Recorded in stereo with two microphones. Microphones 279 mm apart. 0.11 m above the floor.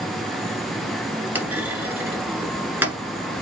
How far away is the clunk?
About 1.5 m.